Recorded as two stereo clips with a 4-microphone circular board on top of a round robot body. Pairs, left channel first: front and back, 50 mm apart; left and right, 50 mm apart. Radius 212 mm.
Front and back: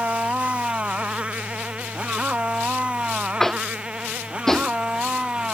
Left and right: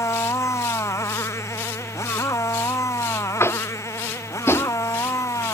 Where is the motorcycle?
115° left; by 5.5 s 105° left.